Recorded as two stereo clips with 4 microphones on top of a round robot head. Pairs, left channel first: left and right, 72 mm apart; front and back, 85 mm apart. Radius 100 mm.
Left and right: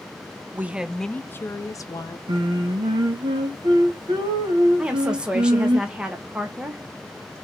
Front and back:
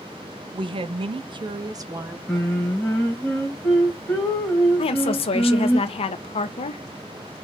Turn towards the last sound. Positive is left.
turn(degrees=-10)